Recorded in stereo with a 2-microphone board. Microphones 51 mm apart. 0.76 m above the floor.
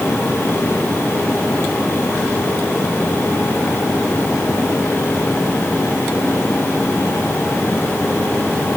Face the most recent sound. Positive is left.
No sound to turn to.